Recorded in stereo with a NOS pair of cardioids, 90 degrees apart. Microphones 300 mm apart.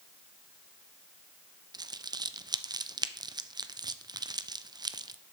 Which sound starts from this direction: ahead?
Crumpling, at 1.7 s.